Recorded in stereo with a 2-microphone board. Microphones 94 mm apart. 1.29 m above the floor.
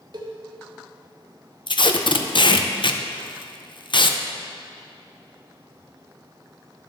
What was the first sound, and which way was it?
A cowbell, 55° right (ahead or behind).